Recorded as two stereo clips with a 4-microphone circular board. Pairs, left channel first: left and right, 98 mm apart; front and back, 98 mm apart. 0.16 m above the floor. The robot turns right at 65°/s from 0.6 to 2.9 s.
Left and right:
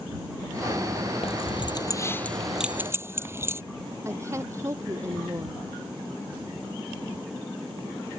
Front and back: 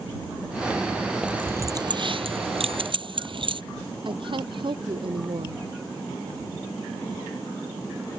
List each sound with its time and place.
1.2 s keys jangling: 100° left; by 3.6 s 155° right
4.0 s a woman speaking: 150° right